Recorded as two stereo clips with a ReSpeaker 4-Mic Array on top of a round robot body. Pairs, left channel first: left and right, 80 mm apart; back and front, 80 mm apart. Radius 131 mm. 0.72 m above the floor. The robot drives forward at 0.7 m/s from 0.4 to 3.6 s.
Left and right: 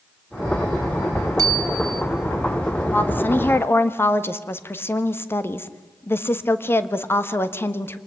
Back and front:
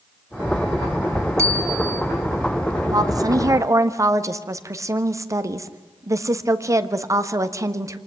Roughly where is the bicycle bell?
Ahead right.